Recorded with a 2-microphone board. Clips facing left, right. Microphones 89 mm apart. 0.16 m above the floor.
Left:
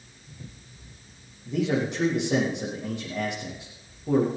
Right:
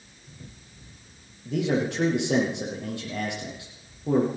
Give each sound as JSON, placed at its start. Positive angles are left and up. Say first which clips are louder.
{"t": 1.4, "sound": "a man speaking", "louder": "even", "side_deg": -75, "distance_m": 6.0}